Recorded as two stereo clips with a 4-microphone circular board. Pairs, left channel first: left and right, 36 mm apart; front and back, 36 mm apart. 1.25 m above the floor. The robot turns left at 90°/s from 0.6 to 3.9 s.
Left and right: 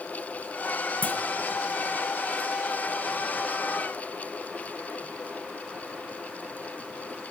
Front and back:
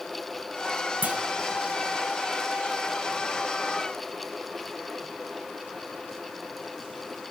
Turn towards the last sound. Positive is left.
turn(degrees=-120)